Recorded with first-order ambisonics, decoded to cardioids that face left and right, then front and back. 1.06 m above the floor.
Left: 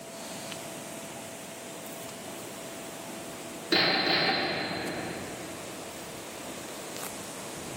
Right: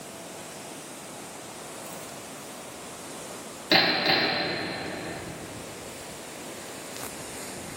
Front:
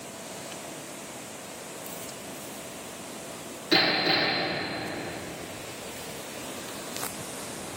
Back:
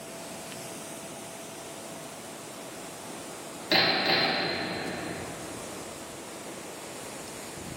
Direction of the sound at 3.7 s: 105° right.